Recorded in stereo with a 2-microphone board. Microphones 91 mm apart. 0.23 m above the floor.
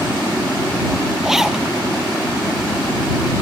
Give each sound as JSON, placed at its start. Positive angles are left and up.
{"t": 1.2, "sound": "a zipper", "side_deg": -5}